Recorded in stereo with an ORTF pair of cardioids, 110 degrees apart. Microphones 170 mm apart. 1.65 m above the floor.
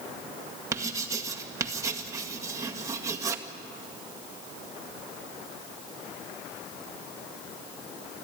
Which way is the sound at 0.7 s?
20° right.